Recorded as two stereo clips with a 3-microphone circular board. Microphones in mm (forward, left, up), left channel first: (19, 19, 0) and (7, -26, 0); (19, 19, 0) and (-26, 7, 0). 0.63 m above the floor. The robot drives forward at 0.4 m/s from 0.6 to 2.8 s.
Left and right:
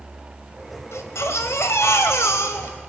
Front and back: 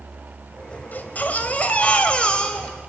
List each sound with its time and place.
0.9 s a baby crying: 65° left, 2 m; by 2.8 s 85° left, 1.9 m